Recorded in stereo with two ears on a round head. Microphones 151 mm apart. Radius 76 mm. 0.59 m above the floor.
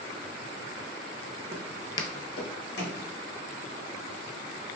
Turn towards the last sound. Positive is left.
turn(degrees=70)  # may be behind; listen again after turning